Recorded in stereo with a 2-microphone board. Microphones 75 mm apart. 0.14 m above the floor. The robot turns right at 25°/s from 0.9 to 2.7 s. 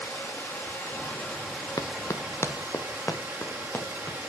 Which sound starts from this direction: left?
Running footsteps, at 1.8 s.